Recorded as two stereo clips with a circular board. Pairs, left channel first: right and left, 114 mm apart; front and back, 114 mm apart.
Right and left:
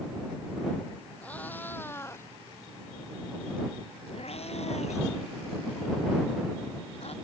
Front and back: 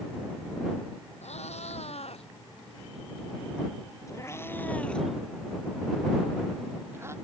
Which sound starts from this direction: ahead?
A cat meowing, at 1.2 s.